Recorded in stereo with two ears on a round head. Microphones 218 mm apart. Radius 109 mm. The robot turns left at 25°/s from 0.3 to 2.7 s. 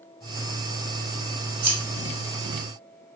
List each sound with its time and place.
1.6 s scissors: 45° right (ahead or behind), 2.5 m